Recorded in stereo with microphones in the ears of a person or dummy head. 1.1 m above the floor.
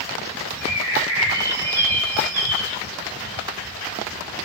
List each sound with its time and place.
0.6 s a bird: 25° right (ahead or behind), 2.5 m